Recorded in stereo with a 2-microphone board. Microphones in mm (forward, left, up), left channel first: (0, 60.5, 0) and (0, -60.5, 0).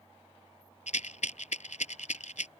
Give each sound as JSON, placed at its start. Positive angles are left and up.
{"t": 0.9, "sound": "a rattle", "side_deg": 80}